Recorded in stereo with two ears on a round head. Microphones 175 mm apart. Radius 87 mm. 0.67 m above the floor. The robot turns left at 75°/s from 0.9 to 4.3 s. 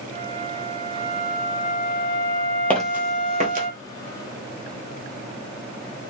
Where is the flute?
160° right, 2 m; by 3.7 s 10° right, 2 m.